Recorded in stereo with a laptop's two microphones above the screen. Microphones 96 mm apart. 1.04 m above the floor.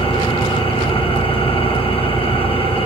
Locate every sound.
0.0 s an engine running: 80° left, 3.5 m